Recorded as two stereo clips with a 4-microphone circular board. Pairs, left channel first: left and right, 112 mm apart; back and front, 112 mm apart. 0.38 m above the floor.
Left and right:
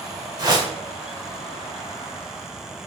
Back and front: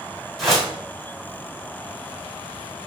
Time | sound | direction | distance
0.4 | a whoosh | 95° right | 1.2 m